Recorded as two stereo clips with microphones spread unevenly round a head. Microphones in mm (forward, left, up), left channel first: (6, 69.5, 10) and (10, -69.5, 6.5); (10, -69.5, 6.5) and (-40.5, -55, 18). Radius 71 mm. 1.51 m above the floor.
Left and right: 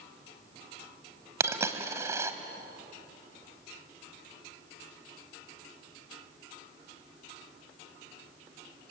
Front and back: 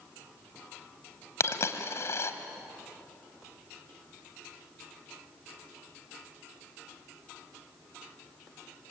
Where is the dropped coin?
25° right, 1.6 m.